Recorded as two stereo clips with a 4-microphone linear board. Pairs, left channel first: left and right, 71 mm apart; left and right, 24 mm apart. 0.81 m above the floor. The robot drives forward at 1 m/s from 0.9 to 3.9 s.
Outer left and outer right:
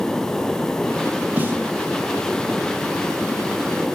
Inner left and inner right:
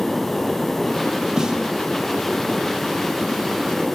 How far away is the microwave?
No microwave in this recording.